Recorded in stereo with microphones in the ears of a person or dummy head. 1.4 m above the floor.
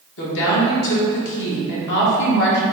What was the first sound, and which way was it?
A woman speaking, 60° left (ahead or behind).